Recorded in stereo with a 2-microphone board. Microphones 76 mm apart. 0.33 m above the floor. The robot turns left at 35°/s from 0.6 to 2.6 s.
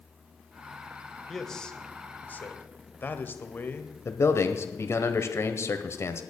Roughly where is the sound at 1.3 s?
Behind.